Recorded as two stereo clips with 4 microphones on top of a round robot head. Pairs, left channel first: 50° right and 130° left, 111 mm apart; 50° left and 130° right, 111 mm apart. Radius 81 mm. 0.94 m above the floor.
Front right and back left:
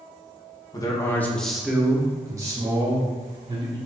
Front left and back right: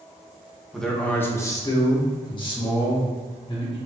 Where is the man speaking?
35° right, 0.9 m; by 3.8 s 90° left, 2.0 m.